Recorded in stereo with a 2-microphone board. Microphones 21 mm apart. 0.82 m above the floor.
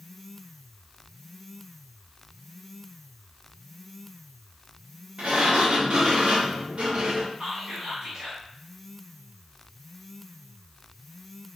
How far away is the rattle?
No rattle in this recording.